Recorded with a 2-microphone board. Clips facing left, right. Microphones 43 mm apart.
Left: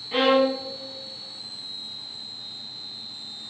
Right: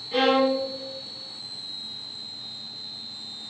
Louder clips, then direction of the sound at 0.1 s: Left 1 dB; 30° left (ahead or behind).